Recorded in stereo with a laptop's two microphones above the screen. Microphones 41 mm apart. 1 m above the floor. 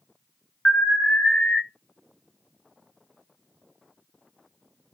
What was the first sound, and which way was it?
An alarm, 25° left (ahead or behind).